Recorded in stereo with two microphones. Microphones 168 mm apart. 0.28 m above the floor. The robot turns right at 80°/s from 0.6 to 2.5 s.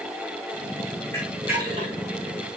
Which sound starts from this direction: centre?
A camera shutter, at 1.1 s.